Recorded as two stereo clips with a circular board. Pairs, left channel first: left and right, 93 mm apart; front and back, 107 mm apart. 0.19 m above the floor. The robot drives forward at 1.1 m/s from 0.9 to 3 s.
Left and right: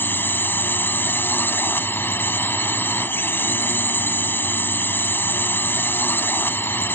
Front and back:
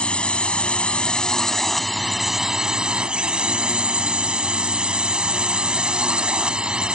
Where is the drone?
65° left; by 7.0 s 110° left.